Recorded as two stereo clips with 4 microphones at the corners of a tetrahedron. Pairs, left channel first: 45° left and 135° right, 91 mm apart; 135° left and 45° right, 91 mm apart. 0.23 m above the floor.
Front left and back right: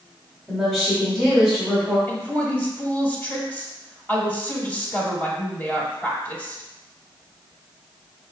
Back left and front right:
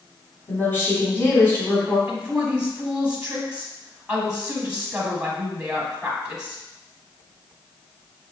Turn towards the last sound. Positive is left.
turn(degrees=10)